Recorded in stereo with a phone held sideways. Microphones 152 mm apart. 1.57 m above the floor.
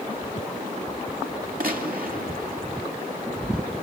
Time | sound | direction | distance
1.6 | a gunshot | 70° right (ahead or behind) | 2.5 m